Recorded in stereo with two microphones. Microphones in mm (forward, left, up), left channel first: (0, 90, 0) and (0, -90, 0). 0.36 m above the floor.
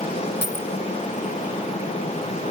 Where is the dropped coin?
80° left, 1.4 m.